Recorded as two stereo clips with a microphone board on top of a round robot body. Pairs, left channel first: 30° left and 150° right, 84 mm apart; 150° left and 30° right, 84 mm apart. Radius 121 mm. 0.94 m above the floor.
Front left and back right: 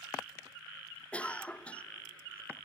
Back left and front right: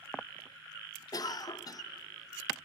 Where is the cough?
105° left, 0.8 m.